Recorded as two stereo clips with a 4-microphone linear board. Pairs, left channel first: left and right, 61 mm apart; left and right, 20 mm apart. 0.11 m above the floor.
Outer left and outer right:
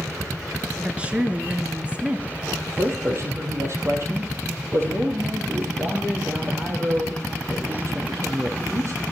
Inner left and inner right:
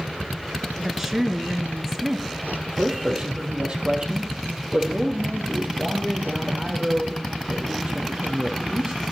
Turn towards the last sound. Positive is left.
turn(degrees=-45)  # may be behind; listen again after turning